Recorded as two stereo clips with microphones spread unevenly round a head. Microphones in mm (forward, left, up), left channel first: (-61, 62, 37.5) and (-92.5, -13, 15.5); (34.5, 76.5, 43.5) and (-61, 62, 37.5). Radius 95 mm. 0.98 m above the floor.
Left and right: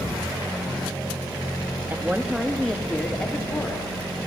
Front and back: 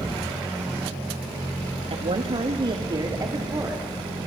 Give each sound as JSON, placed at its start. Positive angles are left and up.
{"t": 1.9, "sound": "a woman speaking", "azimuth_deg": -175, "distance_m": 1.6}